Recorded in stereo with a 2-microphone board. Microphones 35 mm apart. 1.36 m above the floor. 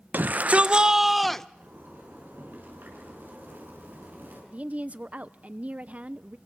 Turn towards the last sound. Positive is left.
turn(degrees=-45)  # may be behind; listen again after turning